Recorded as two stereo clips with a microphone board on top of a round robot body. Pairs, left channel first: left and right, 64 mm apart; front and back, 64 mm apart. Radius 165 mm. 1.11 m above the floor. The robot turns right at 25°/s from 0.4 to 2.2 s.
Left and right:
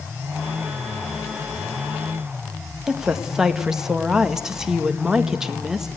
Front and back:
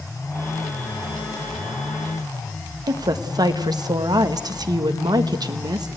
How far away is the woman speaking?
About 1.4 m.